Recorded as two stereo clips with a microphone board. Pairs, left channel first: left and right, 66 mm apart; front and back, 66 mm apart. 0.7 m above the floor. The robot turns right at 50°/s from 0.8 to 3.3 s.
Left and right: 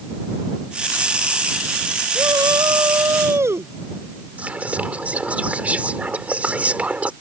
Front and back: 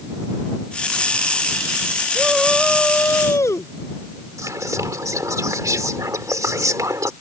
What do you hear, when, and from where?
2.1 s a shout: 100° right; by 3.7 s 45° right
4.4 s whispering: 155° right